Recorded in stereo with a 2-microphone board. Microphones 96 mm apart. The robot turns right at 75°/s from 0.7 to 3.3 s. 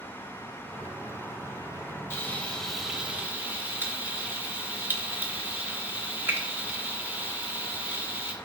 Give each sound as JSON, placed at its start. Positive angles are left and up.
{"t": 2.1, "sound": "frying", "azimuth_deg": 130, "distance_m": 0.7}